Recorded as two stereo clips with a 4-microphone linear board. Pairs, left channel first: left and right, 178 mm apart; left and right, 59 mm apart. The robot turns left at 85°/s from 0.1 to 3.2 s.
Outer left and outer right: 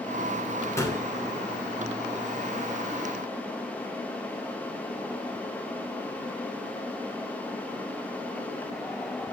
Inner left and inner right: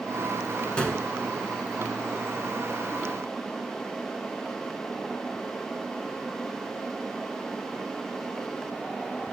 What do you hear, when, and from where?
0.8 s a gunshot: 15° left (ahead or behind), 1.2 m; by 1.0 s 20° left (ahead or behind), 1.2 m